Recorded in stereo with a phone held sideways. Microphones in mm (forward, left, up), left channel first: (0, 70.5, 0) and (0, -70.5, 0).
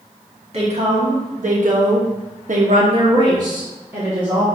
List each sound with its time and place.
0.5 s a woman speaking: 50° right (ahead or behind), 1.9 m; by 4.5 s 10° right (ahead or behind), 1.9 m